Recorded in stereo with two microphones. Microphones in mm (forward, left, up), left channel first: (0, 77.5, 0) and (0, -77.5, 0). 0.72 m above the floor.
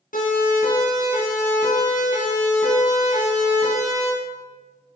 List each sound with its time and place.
0.1 s a siren: 65° left (ahead or behind), 9 m; by 4.1 s 50° left (ahead or behind), 6.5 m